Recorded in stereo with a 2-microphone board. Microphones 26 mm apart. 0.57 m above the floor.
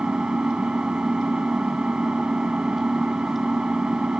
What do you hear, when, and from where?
0.0 s an engine running: 40° right (ahead or behind)